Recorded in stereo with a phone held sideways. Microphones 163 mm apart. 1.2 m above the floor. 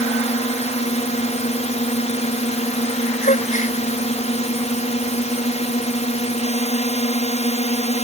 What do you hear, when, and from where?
0.0 s a drone: 40° left (ahead or behind)
3.2 s a gasp: 45° left (ahead or behind)